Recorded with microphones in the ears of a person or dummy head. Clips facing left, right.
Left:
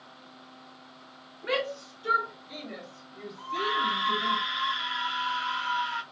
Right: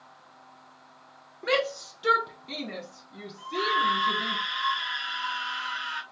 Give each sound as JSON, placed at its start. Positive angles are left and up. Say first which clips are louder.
{"t": 1.4, "sound": "a shout", "louder": "right 3 dB", "side_deg": -55, "distance_m": 1.0}
{"t": 3.4, "sound": "a scream", "louder": "right 3 dB", "side_deg": -5, "distance_m": 2.0}